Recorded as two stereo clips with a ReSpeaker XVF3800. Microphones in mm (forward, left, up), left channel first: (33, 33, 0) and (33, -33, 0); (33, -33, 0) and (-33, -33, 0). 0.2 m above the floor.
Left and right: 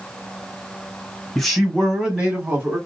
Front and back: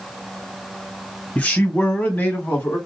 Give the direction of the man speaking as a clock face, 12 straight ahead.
12 o'clock.